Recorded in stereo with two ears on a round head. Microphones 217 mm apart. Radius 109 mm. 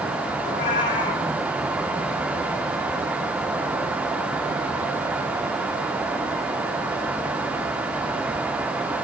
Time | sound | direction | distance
0.4 | a cat meowing | 35° left (ahead or behind) | 3.5 m